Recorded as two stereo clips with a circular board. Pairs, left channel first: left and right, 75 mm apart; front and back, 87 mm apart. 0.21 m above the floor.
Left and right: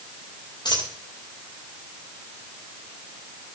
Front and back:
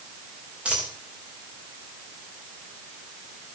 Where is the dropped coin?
105° left, 5.5 m.